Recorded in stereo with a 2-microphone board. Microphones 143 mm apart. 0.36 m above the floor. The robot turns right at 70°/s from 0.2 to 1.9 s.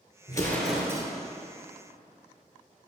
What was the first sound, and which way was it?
An explosion, 150° left.